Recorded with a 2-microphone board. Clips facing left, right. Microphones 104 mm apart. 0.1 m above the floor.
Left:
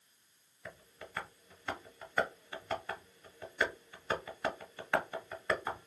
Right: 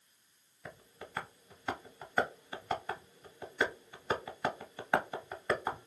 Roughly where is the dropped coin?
I don't hear a dropped coin.